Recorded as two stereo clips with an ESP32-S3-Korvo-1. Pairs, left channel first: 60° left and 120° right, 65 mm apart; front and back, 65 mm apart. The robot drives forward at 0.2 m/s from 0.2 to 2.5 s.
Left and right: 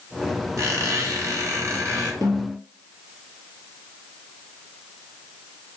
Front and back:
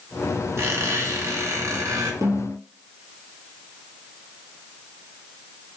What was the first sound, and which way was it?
A squeak, 140° right.